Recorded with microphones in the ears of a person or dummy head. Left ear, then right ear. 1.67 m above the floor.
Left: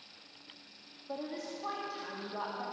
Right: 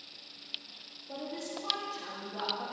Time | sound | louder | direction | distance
1.1 | a woman speaking | even | 70° left (ahead or behind) | 2.5 m